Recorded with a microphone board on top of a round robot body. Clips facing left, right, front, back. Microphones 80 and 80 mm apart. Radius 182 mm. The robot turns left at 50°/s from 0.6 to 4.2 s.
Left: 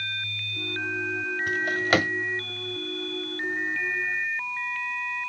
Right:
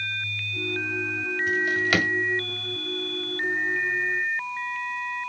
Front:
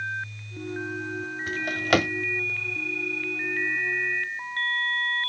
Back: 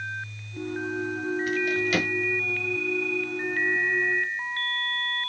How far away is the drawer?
About 0.6 m.